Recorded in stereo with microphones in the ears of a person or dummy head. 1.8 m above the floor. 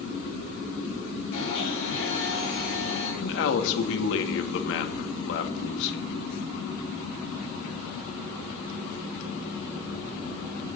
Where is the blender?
65° left (ahead or behind), 8 m.